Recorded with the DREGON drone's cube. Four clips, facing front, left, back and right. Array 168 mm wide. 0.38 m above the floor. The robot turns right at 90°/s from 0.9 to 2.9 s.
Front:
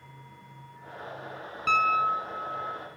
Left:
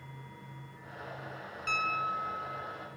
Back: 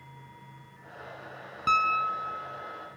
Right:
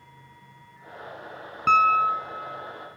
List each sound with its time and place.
1.7 s a piano: 105° right, 0.6 m; by 2.8 s 5° right, 0.6 m